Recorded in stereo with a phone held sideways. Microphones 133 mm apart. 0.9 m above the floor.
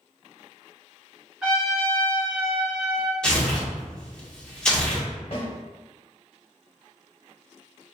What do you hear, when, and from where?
1.4 s a trumpet: 5° right (ahead or behind), 1.7 m
3.2 s tearing paper: 5° left (ahead or behind), 1.1 m
5.3 s a snare drum: 45° left (ahead or behind), 1.3 m